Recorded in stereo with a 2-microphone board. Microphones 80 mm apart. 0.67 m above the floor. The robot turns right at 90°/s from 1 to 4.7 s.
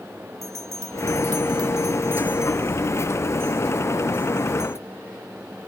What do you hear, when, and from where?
0.4 s a bell: 45° right (ahead or behind); by 4.8 s 15° right (ahead or behind)